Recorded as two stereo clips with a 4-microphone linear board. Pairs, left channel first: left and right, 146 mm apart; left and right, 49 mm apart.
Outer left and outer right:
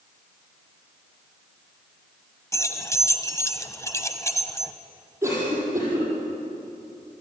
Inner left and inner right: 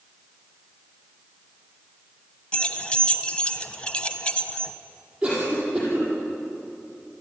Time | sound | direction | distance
2.5 | keys jangling | 20° left (ahead or behind) | 1.1 m
5.2 | a cough | 20° right (ahead or behind) | 8 m